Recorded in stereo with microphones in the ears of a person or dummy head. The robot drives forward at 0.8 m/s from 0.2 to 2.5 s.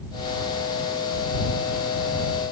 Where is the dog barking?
No dog barking in this recording.